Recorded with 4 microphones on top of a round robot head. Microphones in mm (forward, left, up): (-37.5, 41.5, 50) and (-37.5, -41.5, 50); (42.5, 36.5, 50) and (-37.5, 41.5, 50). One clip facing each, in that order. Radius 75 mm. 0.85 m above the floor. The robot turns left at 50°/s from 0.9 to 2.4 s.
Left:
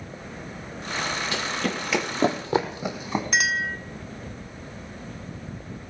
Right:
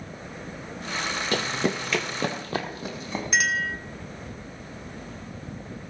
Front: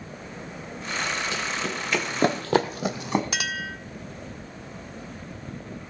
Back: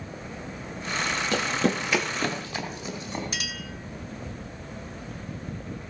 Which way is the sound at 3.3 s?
Straight ahead.